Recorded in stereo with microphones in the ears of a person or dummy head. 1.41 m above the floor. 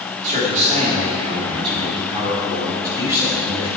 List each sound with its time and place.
0.2 s a man speaking: 45° right (ahead or behind), 3 m; by 3.7 s 15° right (ahead or behind), 6 m